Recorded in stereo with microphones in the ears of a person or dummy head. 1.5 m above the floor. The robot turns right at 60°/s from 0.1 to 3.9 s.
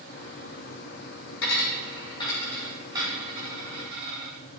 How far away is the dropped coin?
About 6 m.